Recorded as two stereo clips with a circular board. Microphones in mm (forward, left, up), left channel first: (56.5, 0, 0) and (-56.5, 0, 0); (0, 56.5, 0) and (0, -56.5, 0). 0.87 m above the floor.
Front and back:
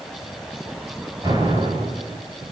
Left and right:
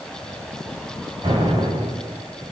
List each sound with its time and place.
1.2 s an explosion: 130° right, 5 m